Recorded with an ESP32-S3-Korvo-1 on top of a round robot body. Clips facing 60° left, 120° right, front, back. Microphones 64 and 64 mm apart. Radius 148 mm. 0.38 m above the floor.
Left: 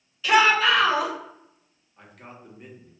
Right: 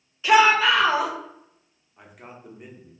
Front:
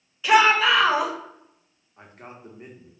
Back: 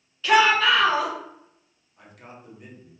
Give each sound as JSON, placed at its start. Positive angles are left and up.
{"t": 0.2, "sound": "a shout", "azimuth_deg": -65, "distance_m": 1.5}
{"t": 2.0, "sound": "a man speaking", "azimuth_deg": -40, "distance_m": 1.1}